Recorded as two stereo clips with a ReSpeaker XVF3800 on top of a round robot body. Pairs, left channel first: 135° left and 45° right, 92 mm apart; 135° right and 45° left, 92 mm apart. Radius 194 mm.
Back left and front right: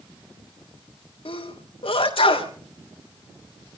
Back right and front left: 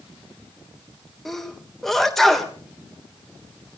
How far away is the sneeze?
About 3.5 m.